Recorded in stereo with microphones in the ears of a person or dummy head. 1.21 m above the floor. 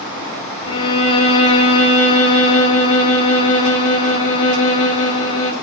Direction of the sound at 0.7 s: 80° left.